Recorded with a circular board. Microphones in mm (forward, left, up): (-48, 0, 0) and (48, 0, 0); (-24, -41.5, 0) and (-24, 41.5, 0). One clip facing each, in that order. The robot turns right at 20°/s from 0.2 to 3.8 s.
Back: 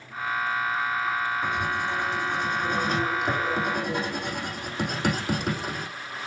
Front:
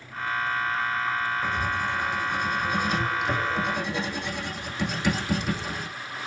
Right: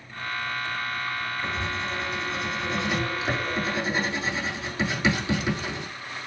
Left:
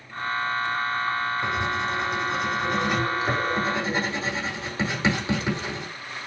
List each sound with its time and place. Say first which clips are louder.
1.4 s writing: even, left 4 dB; 100° left, 5 m; by 5.9 s 150° left, 5 m